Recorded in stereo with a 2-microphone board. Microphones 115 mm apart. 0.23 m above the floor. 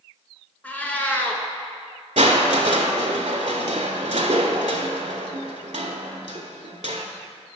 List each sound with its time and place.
0.6 s a cat meowing: 15° left (ahead or behind), 0.7 m
2.2 s crushing: 80° right, 0.7 m